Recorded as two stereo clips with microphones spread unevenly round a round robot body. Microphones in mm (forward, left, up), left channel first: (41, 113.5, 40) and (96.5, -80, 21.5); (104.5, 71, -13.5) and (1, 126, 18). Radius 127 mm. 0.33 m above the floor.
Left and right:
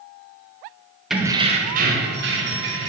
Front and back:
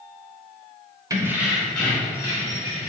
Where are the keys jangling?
150° right, 0.6 m; by 2.9 s 85° right, 1.6 m.